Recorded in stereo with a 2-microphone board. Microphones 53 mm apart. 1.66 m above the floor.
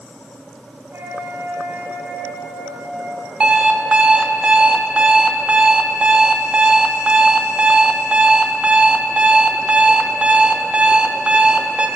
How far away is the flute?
About 2 m.